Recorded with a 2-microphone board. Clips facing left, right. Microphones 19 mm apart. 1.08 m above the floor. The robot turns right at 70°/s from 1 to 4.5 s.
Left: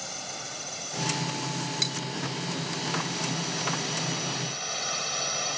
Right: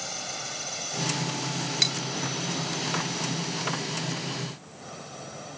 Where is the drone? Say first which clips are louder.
Right 2 dB; 5° right (ahead or behind); by 5.6 s 80° left.